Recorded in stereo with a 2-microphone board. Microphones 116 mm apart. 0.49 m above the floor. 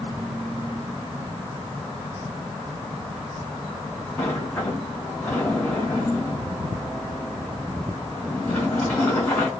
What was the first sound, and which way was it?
A sliding door, 15° left (ahead or behind).